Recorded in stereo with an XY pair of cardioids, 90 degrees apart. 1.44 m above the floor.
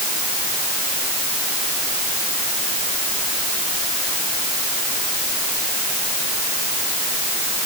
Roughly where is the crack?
No crack in this recording.